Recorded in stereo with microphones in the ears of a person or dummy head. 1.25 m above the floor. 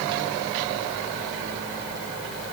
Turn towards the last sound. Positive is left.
No sound to turn to.